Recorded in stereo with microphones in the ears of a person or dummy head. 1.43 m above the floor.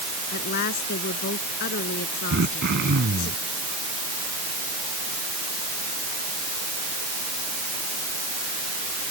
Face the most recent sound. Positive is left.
turn(degrees=-55)  # may be behind; listen again after turning